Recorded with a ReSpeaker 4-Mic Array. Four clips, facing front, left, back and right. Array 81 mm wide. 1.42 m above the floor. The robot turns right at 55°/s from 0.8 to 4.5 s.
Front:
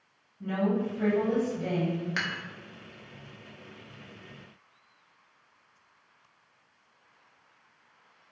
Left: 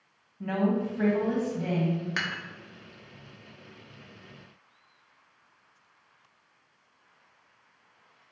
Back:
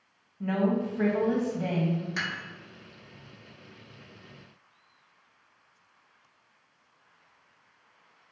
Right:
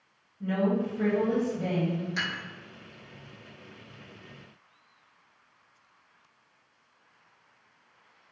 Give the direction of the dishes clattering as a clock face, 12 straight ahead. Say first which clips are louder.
Left 1 dB, even; 10 o'clock.